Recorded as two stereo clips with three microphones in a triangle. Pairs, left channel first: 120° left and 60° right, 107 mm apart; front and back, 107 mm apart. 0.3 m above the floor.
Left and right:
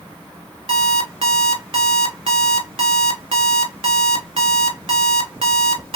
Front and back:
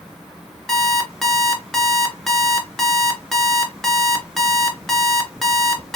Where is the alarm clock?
85° right, 1.3 m.